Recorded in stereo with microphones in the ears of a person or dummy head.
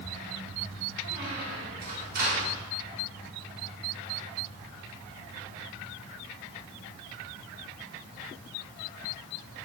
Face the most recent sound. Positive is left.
turn(degrees=-60)  # may be behind; listen again after turning